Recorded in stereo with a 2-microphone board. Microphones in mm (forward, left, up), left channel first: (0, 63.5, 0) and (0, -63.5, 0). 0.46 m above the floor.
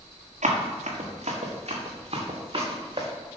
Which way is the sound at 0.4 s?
70° right (ahead or behind).